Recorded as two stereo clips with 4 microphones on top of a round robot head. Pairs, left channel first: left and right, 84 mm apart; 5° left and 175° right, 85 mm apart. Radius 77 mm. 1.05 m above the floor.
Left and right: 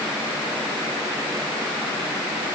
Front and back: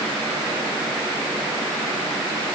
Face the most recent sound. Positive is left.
No sound to turn to.